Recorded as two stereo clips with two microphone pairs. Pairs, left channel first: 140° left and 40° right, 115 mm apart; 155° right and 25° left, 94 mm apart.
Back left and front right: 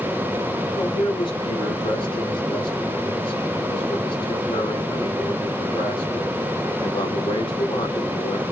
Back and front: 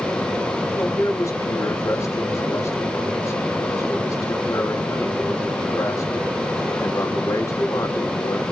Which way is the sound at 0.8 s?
165° left.